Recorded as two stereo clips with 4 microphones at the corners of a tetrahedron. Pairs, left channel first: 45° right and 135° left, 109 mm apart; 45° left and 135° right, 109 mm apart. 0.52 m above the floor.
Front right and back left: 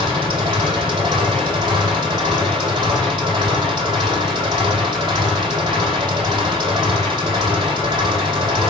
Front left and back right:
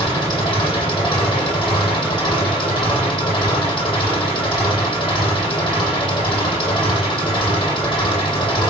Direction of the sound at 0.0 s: 90° left.